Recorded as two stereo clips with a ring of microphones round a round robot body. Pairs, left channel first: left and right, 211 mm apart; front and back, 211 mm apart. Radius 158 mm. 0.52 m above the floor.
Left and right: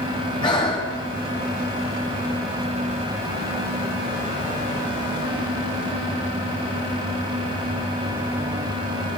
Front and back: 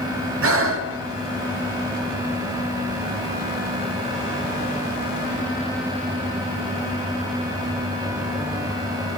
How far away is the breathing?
About 1.0 m.